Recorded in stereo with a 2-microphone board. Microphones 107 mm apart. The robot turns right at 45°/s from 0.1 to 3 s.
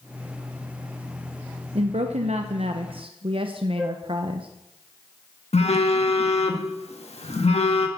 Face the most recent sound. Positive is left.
turn(degrees=75)  # may be behind; listen again after turning